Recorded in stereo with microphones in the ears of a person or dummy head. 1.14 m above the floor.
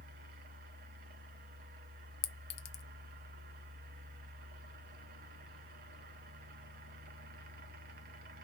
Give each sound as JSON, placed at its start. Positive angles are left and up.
{"t": 0.0, "sound": "a fan", "side_deg": -45, "distance_m": 0.7}
{"t": 2.2, "sound": "a clink", "side_deg": 60, "distance_m": 0.6}